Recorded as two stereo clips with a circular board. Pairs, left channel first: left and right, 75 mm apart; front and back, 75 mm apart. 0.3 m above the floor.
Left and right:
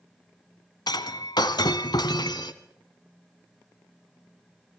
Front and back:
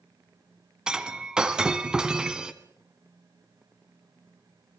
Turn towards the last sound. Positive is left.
turn(degrees=100)